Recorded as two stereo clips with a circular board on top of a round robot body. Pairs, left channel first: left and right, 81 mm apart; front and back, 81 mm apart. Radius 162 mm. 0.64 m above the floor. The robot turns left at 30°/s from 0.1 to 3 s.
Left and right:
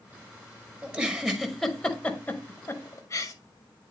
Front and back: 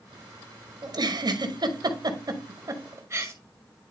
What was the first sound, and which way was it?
A giggle, 160° right.